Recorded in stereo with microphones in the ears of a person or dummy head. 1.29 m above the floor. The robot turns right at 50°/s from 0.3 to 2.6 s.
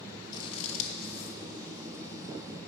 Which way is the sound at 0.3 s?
30° left (ahead or behind).